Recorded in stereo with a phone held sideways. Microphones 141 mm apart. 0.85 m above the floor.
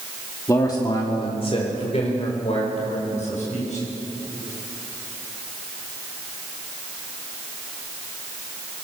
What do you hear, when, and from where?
0.5 s a man speaking: 20° left (ahead or behind), 1.9 m; by 3.8 s 55° left (ahead or behind), 6 m